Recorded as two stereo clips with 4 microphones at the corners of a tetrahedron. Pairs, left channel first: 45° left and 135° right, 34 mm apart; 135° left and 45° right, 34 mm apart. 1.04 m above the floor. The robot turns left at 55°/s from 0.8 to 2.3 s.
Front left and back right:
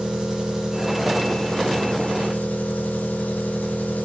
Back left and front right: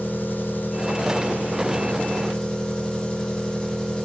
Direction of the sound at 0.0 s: 160° left.